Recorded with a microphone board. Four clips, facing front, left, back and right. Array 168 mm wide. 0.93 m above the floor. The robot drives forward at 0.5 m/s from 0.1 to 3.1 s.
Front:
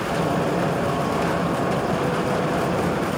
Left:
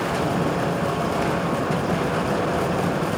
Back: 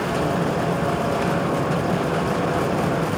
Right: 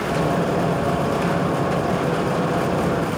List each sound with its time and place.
Only background noise.